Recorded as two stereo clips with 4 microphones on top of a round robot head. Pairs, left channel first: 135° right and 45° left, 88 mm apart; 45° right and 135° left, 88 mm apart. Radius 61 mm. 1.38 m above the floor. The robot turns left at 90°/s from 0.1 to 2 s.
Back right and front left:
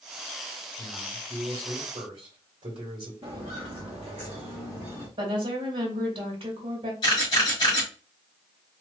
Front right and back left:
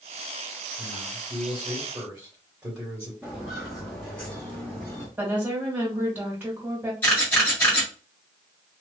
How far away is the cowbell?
I don't hear a cowbell.